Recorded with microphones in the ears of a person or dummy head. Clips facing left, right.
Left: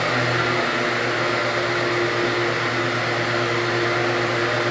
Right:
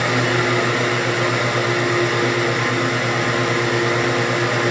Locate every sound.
0.0 s a fan: 50° right (ahead or behind), 1.8 m